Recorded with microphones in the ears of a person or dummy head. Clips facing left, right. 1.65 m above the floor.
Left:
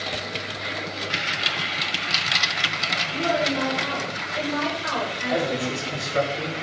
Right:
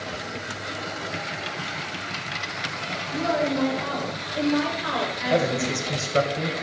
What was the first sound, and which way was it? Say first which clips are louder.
A woman speaking: even; 5° right (ahead or behind).